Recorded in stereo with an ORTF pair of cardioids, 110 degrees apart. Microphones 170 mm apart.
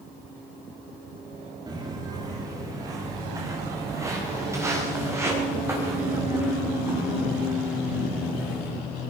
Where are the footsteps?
25° right, 8 m; by 8.7 s 10° right, 11.5 m.